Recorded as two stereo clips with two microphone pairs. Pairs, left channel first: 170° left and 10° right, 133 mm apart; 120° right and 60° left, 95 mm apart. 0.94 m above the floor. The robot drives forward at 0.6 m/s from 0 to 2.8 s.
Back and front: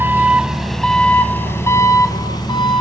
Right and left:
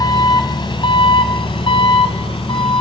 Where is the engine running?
85° right, 1.5 m; by 2.8 s 140° right, 2 m.